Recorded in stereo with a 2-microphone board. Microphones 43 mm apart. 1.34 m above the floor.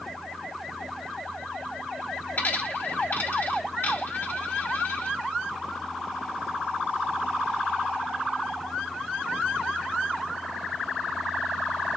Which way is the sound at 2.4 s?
45° left (ahead or behind).